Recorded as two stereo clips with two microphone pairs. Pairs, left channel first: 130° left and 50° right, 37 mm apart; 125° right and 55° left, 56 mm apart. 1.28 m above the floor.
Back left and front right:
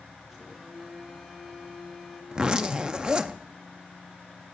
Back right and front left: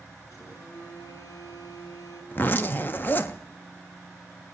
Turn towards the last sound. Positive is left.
turn(degrees=-100)